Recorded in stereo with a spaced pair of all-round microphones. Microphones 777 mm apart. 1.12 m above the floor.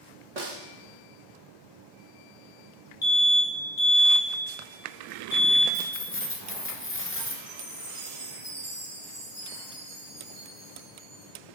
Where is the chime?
40° right (ahead or behind), 3 m.